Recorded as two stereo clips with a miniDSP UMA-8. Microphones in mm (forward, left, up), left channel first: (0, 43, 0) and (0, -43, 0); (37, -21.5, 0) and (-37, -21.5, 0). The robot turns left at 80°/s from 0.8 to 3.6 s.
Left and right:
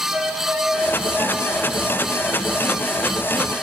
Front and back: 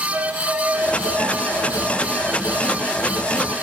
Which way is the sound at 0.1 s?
105° right.